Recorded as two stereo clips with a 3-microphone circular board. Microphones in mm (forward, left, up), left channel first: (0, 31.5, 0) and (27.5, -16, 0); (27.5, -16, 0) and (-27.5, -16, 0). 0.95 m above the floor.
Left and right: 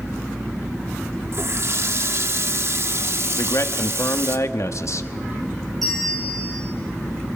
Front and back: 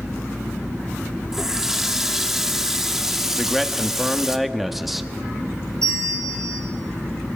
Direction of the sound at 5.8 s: 150° right.